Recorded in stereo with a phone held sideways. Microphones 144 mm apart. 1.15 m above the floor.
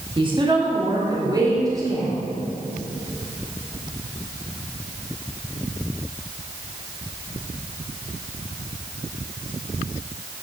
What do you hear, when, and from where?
0.2 s a woman speaking: 35° right (ahead or behind), 1.8 m; by 2.1 s 25° right (ahead or behind), 3.5 m